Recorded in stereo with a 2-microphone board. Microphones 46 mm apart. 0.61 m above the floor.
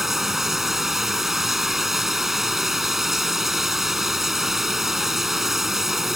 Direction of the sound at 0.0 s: 10° right (ahead or behind).